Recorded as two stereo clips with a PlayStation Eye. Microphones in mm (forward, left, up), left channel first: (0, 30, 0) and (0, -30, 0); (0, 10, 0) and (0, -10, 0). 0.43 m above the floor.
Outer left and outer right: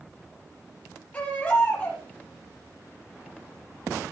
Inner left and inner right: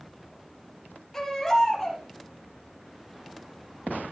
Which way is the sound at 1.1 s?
25° left (ahead or behind).